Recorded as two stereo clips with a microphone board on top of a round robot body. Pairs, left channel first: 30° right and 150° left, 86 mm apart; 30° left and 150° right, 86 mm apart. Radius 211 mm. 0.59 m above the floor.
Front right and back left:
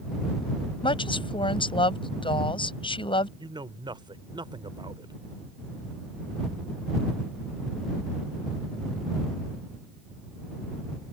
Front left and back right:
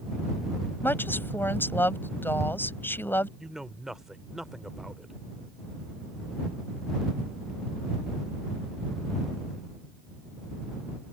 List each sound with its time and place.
0.8 s a woman speaking: 35° right
3.4 s a man speaking: 125° left